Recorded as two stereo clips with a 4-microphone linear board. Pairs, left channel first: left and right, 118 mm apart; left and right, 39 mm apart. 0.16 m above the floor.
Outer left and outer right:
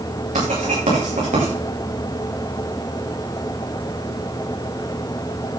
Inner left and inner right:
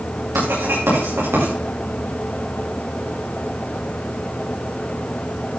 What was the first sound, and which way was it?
Writing, 90° right.